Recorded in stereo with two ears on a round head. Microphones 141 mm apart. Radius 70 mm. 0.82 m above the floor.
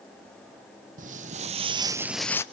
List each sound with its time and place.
1.0 s footsteps: 55° right (ahead or behind), 1.6 m; by 2.4 s 20° left (ahead or behind), 0.8 m